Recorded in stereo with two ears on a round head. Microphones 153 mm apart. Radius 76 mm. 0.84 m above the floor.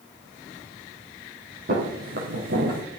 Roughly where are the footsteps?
Right.